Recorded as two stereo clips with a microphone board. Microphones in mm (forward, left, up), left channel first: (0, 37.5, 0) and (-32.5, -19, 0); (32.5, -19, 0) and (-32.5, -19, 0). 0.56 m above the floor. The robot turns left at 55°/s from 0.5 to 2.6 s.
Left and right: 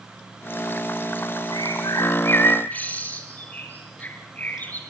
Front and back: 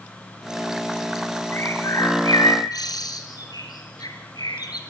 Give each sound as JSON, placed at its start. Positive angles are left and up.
{"t": 1.5, "sound": "a bird", "azimuth_deg": 55, "distance_m": 4.0}